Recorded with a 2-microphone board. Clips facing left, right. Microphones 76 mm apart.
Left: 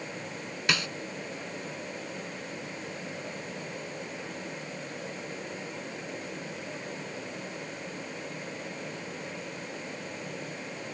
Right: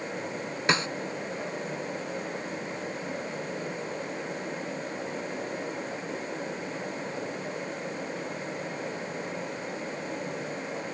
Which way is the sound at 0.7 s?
30° right (ahead or behind).